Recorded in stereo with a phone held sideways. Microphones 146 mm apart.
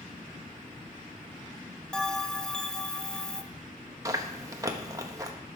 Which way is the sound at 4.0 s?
25° right (ahead or behind).